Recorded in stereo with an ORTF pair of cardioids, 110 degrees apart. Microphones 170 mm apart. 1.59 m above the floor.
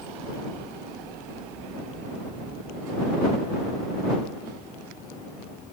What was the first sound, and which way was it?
Only background noise.